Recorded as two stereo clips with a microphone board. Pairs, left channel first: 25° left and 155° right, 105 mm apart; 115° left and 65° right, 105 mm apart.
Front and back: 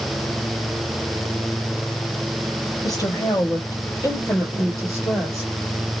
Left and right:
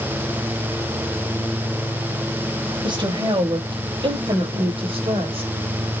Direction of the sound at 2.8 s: 30° right.